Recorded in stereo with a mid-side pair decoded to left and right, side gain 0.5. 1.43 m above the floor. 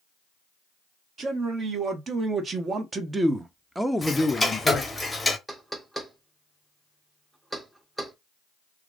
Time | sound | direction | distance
1.2 | a man speaking | 50° right | 1.7 m
4.0 | ticking | 10° left | 0.9 m
5.5 | knocking | 15° right | 1.0 m